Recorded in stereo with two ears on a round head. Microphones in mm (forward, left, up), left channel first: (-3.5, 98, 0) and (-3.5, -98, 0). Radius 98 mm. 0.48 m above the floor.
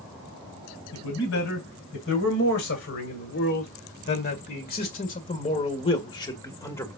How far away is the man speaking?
About 3.5 m.